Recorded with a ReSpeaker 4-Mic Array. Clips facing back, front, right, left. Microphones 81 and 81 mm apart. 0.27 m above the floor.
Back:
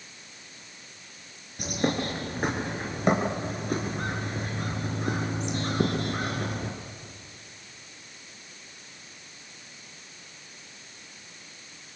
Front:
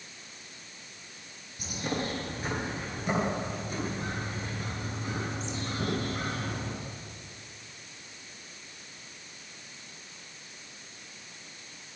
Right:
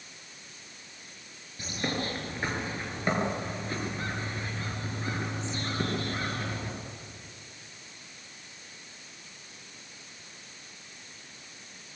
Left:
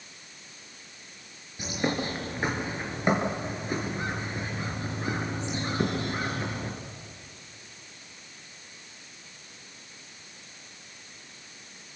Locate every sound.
1.6 s a bird: 160° left, 4.5 m